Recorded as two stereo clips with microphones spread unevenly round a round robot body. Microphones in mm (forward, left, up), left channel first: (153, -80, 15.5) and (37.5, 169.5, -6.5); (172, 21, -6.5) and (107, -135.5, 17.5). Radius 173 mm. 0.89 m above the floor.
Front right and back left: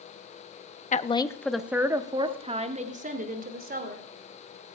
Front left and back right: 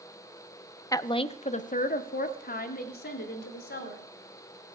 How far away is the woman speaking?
About 0.9 m.